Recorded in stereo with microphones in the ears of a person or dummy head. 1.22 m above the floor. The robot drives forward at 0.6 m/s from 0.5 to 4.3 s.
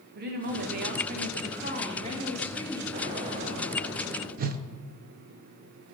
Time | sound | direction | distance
0.1 | a woman speaking | 55° right (ahead or behind) | 1.3 m
2.9 | an explosion | 30° right (ahead or behind) | 2 m
4.4 | a whoosh | 45° right (ahead or behind) | 0.5 m